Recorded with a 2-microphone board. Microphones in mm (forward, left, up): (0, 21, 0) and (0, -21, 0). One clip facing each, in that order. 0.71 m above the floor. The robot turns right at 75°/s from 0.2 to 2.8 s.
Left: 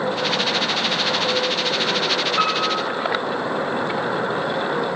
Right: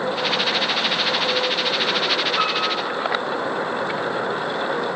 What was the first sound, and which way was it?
A piano, 160° left.